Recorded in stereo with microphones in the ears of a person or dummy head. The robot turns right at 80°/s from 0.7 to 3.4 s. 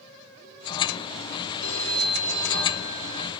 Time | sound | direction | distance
1.6 | a phone ringing | 100° left | 3 m